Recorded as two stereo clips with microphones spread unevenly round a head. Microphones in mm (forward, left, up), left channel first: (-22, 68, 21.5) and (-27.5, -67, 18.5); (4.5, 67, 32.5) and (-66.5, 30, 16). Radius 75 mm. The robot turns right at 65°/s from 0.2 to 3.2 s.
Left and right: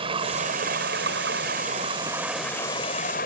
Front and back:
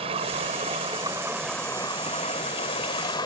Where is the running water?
145° right; by 3.3 s 50° left.